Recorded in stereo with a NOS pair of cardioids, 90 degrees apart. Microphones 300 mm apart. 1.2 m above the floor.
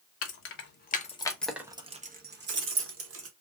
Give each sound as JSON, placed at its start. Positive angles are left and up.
{"t": 0.2, "sound": "keys jangling", "azimuth_deg": 55, "distance_m": 1.0}